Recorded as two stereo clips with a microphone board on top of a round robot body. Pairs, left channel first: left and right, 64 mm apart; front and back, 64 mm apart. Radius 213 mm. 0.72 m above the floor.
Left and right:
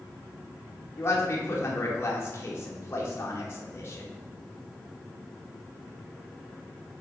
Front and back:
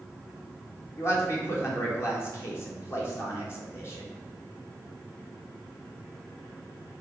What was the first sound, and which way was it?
A man speaking, 40° left.